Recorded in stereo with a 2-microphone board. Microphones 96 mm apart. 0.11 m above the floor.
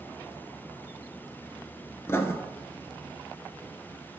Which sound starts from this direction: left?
Writing, at 2.1 s.